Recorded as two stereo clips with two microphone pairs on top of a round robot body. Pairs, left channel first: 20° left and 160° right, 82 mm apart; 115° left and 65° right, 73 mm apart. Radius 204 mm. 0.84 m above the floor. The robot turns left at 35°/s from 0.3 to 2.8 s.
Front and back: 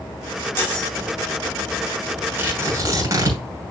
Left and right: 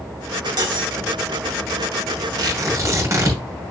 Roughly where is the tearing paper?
Right.